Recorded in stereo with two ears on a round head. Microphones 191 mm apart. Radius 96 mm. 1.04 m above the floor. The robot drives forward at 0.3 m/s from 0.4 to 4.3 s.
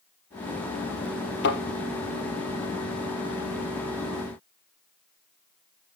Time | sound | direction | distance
1.4 | a thud | 55° left (ahead or behind) | 3.5 m